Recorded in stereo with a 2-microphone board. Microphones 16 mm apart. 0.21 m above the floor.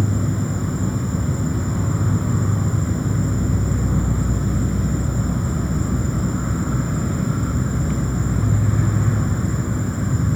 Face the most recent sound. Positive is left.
turn(degrees=0)  # may be behind; listen again after turning